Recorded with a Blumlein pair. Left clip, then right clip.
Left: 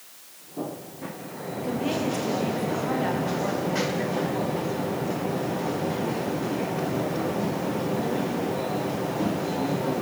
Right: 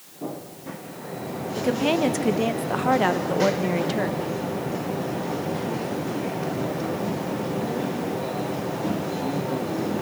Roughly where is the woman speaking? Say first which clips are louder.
Right 6 dB; ahead right.